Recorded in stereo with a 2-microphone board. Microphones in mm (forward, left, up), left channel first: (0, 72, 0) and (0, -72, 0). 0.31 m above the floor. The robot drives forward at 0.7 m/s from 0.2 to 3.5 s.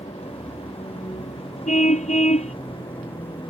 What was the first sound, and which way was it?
A vehicle, 45° left (ahead or behind).